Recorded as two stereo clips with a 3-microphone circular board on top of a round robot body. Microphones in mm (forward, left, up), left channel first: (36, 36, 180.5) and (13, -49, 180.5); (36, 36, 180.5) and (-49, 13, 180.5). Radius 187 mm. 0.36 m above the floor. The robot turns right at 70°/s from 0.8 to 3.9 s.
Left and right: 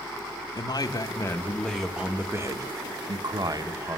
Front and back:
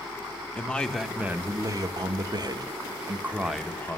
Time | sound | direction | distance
0.6 | a man speaking | 90° left | 1.1 m